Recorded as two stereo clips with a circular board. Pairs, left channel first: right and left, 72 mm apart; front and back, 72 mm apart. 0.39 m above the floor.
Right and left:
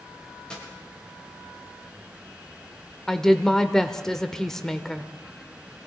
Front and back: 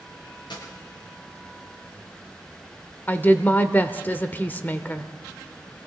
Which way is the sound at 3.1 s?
15° right.